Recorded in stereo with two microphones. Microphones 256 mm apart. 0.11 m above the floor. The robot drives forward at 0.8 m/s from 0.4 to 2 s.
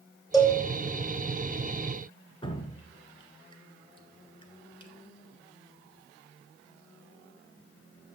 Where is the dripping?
20° left (ahead or behind), 1.0 m.